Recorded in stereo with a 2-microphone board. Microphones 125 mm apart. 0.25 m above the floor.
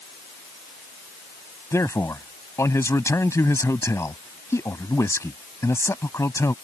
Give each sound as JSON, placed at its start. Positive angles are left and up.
{"t": 1.7, "sound": "a man speaking", "side_deg": 25}